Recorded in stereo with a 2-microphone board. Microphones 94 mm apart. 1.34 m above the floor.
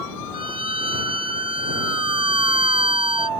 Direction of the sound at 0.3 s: 80° right.